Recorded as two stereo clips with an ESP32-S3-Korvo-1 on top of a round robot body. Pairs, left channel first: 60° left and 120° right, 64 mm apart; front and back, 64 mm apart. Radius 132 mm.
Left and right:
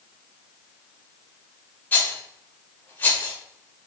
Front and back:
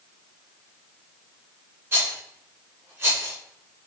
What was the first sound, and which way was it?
A rattle, 125° left.